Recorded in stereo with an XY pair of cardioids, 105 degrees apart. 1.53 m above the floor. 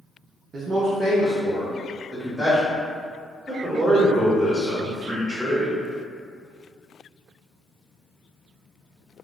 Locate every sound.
0.5 s a man speaking: 50° right, 0.5 m; by 2.8 s straight ahead, 1.4 m
3.5 s a man speaking: 10° right, 1.3 m